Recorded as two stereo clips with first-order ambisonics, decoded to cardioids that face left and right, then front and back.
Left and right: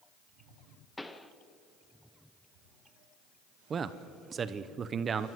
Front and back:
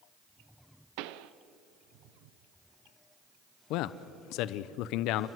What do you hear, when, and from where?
1.0 s a pop: 175° left, 0.8 m
3.7 s a man speaking: 25° right, 0.8 m